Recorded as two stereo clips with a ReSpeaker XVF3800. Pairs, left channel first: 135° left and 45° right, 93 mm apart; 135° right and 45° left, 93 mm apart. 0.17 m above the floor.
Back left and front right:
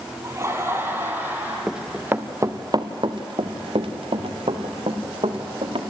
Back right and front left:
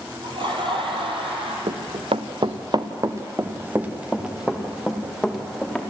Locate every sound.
0.2 s laughter: 15° left, 3.5 m; by 1.6 s 25° left, 5 m
1.7 s running footsteps: 40° left, 1.5 m; by 5.8 s 50° right, 4 m